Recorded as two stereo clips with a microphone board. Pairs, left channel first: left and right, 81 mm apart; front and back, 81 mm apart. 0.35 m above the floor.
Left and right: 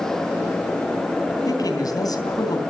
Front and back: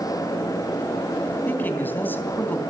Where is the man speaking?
60° left, 3 m.